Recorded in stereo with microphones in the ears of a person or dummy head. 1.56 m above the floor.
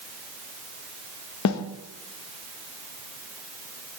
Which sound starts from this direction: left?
A snare drum, at 1.4 s.